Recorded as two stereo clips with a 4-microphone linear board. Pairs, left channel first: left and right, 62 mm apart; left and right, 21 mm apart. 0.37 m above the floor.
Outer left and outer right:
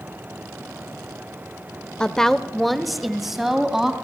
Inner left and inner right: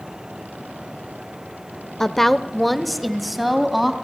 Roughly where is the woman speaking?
Centre.